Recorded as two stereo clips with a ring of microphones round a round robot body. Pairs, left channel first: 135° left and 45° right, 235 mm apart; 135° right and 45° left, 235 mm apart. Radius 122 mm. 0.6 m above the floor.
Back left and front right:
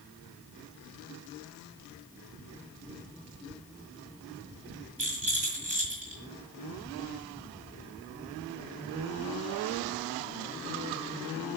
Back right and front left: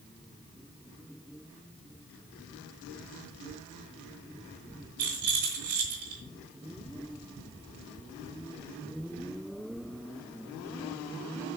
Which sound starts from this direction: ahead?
A rattle, at 5.0 s.